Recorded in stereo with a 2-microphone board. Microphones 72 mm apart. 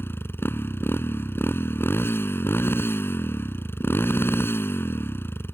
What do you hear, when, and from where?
0.0 s a motorcycle: 30° left (ahead or behind)